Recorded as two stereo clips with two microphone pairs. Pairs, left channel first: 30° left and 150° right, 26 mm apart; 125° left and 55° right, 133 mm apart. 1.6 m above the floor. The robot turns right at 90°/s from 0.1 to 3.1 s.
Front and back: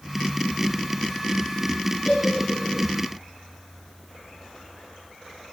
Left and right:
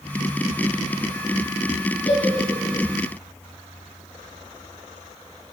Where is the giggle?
90° left, 8.5 m; by 2.9 s 165° left, 8.5 m.